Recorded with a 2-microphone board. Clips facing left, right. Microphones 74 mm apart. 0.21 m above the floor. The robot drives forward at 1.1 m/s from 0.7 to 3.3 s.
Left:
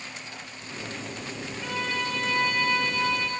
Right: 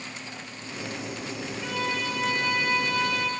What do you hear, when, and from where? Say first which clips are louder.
1.6 s a violin: even; 5° left (ahead or behind), 4.5 m; by 3.3 s centre (ahead or behind), 6 m